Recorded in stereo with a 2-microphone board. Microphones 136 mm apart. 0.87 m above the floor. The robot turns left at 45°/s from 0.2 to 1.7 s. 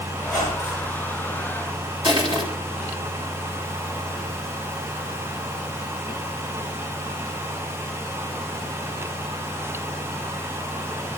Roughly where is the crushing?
Right.